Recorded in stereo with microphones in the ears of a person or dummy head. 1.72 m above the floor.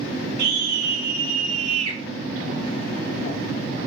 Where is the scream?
65° right (ahead or behind), 2.5 m; by 2.0 s 40° right (ahead or behind), 2 m.